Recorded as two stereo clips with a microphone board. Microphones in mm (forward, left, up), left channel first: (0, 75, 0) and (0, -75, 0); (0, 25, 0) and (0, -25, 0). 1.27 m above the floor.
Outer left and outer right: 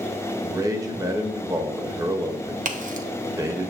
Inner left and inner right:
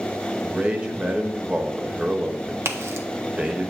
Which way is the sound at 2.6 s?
60° right (ahead or behind).